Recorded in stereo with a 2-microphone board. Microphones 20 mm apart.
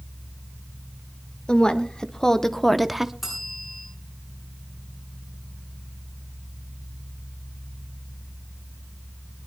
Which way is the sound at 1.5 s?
50° left (ahead or behind).